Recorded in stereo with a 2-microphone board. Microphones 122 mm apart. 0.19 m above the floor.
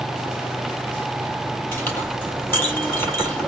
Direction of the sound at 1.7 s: 15° left (ahead or behind).